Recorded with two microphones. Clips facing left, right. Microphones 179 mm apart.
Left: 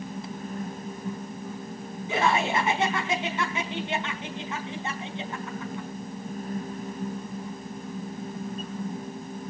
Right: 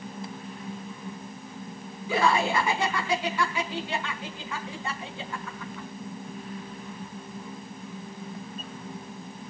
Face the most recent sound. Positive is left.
turn(degrees=25)  # may be behind; listen again after turning